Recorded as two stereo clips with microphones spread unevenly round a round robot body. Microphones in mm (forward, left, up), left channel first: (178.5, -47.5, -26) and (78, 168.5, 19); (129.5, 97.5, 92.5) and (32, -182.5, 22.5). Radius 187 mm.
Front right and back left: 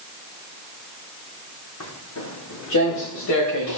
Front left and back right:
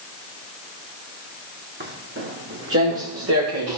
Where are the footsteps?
50° right, 4.5 m; by 3.8 s 70° right, 4.5 m.